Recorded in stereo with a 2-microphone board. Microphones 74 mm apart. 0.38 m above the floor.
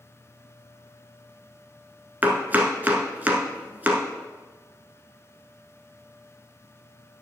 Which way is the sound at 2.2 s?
25° right (ahead or behind).